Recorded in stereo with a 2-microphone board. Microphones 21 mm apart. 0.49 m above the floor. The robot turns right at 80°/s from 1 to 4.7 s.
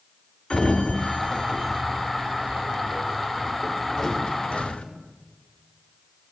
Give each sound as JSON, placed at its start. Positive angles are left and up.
{"t": 0.5, "sound": "a sliding door", "side_deg": 35, "distance_m": 0.7}